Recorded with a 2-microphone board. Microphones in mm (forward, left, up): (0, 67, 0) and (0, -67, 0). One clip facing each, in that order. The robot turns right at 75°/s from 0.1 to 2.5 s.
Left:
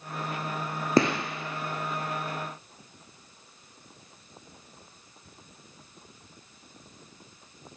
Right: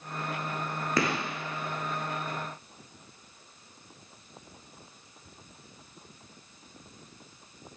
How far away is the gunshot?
About 0.5 m.